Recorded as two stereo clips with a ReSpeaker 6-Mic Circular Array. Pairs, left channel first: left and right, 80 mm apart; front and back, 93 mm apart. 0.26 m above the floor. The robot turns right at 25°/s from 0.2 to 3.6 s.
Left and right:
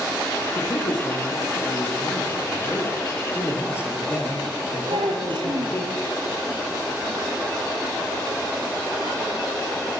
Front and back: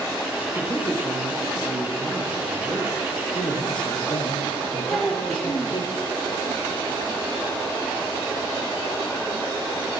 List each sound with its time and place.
0.6 s a man speaking: 70° left, 7.5 m; by 3.0 s 130° left, 7.5 m
3.3 s a man speaking: 25° left, 7 m; by 5.9 s 30° left, 7 m
4.9 s a child speaking: 90° right, 4 m